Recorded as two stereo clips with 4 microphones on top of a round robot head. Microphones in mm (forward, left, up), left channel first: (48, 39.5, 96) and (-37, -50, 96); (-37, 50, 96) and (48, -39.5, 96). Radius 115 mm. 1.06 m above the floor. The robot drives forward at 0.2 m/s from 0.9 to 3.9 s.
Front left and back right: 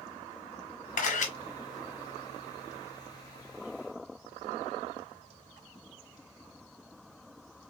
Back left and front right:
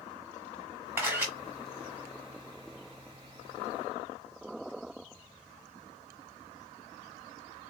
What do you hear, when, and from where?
1.0 s a camera shutter: 30° left, 1.2 m